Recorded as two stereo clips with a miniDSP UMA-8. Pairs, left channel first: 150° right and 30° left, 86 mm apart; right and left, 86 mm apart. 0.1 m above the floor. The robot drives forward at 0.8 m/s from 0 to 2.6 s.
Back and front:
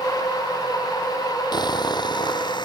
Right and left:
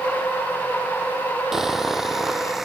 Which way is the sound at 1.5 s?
175° left.